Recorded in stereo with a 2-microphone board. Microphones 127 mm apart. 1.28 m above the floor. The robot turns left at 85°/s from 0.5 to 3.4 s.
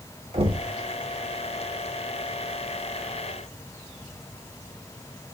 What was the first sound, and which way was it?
Knocking, 55° right (ahead or behind).